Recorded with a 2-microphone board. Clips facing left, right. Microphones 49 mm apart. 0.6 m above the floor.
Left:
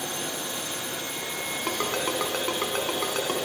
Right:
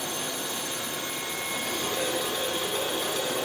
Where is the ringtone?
55° left (ahead or behind), 3.5 m.